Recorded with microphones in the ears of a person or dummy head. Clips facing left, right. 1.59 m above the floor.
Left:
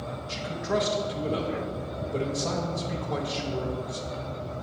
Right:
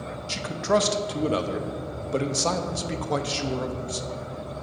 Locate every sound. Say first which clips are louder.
0.3 s a man speaking: right 5 dB; 70° right (ahead or behind), 0.5 m